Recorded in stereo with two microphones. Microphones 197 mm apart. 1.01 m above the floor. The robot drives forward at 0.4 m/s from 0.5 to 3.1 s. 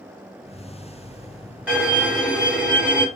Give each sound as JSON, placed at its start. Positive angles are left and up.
{"t": 1.7, "sound": "a violin", "side_deg": -5, "distance_m": 2.5}